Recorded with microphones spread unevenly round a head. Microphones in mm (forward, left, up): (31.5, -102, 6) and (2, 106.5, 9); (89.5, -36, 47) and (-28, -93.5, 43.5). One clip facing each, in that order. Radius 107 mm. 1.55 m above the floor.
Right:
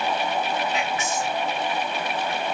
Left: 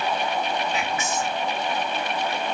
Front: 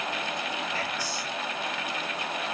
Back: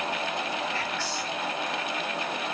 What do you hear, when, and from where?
0.7 s whispering: 110° left, 2 m